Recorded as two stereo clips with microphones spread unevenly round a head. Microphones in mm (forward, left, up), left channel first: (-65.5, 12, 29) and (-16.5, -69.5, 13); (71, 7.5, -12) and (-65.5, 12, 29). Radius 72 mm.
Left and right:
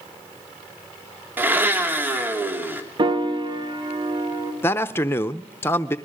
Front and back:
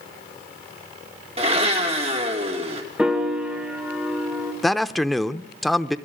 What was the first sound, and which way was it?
A blender, 130° right.